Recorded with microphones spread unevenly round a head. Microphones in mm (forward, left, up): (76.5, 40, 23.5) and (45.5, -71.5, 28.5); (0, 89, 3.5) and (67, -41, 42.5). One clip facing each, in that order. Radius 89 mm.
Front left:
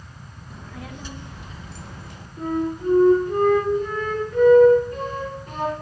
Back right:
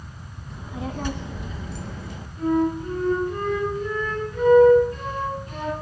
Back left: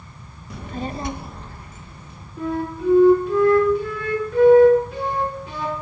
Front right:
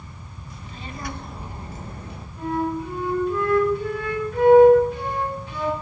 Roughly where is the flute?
Behind left.